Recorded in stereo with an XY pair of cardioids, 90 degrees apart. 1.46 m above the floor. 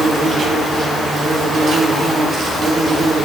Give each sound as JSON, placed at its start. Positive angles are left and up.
{"t": 0.0, "sound": "an insect", "azimuth_deg": -55, "distance_m": 2.0}